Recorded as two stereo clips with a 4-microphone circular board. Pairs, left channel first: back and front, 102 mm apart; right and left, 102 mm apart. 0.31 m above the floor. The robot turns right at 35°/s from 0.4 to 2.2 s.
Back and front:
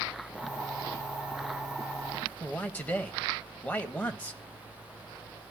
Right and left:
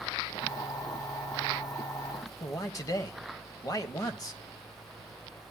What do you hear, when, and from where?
2.4 s a man speaking: 115° right, 1.3 m